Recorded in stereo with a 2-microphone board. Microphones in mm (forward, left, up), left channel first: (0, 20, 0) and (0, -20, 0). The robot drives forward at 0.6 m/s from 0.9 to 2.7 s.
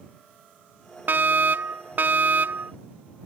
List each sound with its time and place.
1.1 s a fire alarm: 50° right (ahead or behind)